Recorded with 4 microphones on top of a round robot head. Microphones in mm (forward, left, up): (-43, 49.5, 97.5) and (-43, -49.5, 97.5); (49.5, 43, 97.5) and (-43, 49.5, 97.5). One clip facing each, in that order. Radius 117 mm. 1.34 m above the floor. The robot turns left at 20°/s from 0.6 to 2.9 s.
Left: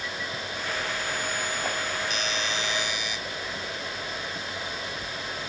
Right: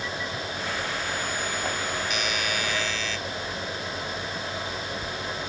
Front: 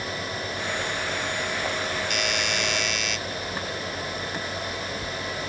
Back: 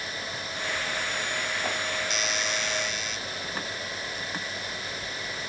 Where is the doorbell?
30° left; by 3.2 s 15° left.